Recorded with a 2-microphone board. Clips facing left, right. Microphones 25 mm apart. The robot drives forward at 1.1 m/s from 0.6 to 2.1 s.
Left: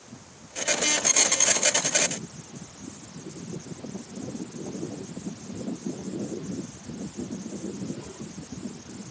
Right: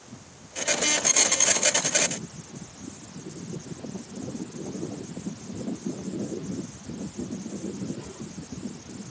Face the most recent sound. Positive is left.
No sound to turn to.